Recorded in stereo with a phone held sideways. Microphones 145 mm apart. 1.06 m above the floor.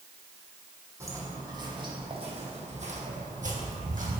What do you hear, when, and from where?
1.0 s footsteps: 20° right (ahead or behind), 2.5 m; by 4.2 s 65° right (ahead or behind), 2.5 m